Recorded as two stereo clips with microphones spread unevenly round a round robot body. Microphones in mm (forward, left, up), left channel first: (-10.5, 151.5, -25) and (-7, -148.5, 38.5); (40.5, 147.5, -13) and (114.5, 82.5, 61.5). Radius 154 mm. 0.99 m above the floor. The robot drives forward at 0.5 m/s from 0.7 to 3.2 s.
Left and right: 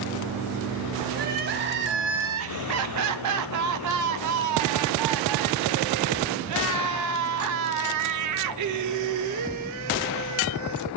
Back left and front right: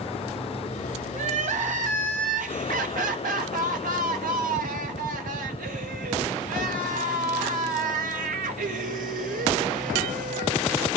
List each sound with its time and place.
1.1 s crying: 25° right, 1.7 m; by 11.0 s 60° right, 1.0 m